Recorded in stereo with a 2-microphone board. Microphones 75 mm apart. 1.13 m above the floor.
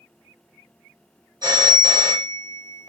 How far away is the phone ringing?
About 1.8 m.